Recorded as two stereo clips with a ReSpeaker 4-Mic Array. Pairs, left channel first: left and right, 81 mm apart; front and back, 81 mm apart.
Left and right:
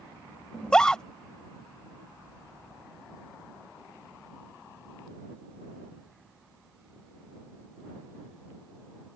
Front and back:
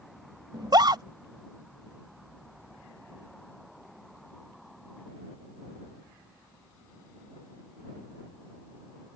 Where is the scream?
170° left.